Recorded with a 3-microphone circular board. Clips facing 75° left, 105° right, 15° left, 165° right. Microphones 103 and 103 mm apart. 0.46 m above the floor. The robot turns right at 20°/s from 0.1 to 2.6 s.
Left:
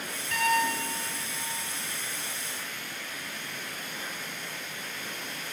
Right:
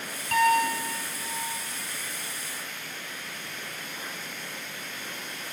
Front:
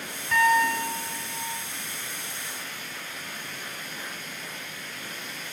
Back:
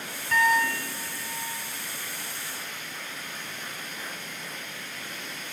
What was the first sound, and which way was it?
A piano, 75° right.